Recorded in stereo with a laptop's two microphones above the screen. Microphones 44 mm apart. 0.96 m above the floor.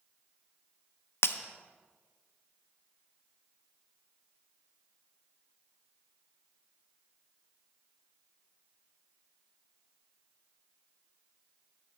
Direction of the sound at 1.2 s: 60° left (ahead or behind).